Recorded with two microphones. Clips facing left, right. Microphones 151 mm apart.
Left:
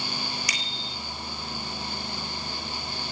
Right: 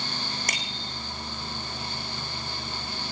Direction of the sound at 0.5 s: 50° right (ahead or behind).